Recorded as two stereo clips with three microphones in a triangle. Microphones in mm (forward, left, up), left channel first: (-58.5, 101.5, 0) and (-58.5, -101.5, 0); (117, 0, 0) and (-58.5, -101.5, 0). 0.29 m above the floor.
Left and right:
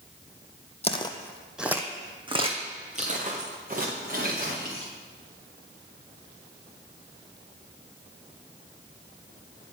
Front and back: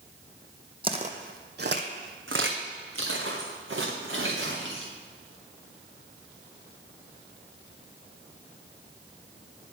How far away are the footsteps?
About 0.8 m.